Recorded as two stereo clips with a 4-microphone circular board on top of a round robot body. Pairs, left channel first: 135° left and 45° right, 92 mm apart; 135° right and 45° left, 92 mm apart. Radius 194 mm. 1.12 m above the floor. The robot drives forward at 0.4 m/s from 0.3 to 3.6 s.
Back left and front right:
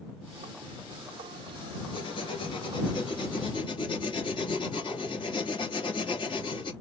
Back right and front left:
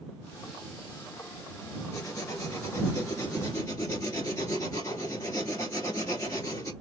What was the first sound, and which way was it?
Writing, 165° left.